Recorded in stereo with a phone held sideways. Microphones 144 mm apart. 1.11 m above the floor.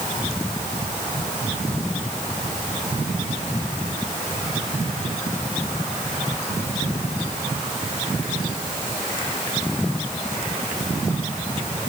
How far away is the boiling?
I don't hear boiling.